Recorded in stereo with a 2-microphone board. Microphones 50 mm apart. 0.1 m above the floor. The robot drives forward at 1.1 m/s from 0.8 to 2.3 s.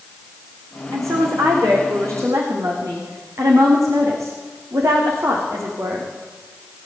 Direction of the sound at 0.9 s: 80° right.